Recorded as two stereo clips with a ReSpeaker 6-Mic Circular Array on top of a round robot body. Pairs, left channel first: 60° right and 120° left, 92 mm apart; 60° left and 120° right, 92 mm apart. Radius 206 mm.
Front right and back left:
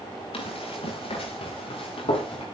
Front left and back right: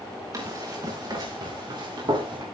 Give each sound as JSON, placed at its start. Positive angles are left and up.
{"t": 0.3, "sound": "running footsteps", "azimuth_deg": -70, "distance_m": 8.5}